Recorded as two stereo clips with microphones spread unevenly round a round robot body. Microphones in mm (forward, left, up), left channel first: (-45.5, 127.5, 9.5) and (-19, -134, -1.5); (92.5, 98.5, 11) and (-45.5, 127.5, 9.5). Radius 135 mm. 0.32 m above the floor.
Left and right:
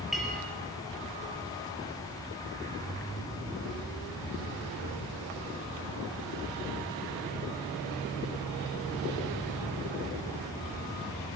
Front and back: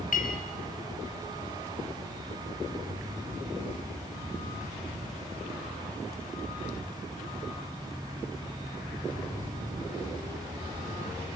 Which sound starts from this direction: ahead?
A clink, at 0.1 s.